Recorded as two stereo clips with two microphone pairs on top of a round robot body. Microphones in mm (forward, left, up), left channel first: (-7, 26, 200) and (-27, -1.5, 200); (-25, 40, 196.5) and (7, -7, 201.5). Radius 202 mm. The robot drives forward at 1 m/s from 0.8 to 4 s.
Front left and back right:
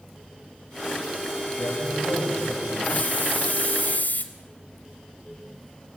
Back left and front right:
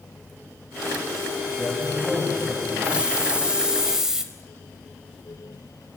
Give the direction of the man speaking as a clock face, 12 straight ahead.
11 o'clock.